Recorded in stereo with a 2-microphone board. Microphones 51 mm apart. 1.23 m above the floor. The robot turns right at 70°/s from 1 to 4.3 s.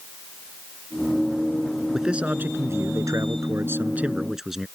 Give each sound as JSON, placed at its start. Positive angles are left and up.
{"t": 1.9, "sound": "a man speaking", "azimuth_deg": -175}